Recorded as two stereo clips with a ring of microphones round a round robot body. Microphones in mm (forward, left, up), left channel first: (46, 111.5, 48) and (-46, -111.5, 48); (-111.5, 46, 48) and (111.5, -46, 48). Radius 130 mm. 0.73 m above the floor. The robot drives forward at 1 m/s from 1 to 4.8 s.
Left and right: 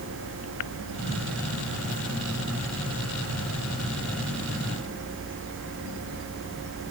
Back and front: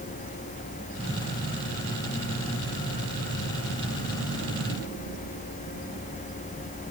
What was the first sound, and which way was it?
Only background noise.